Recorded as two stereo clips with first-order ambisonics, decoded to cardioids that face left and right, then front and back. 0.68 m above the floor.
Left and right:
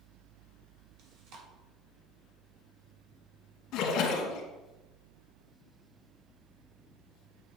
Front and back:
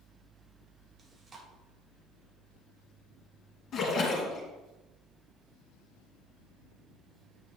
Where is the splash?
55° left, 1.8 m.